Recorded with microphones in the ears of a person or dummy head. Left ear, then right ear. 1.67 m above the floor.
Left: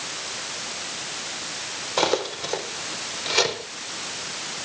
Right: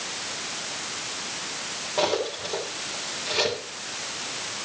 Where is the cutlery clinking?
80° left, 4 m.